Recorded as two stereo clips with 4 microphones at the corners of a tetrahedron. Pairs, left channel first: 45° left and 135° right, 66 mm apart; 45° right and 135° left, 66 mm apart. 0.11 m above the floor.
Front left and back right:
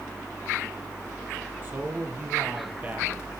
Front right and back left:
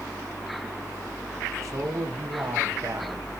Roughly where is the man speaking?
Behind.